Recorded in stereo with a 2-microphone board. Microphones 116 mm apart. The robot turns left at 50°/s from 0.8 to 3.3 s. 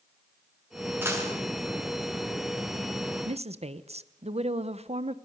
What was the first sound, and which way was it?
A dropped coin, 20° right (ahead or behind).